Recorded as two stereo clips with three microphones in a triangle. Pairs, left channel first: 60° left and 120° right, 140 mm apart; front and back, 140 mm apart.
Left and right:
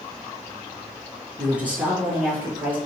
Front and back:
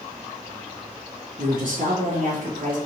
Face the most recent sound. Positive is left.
turn(degrees=165)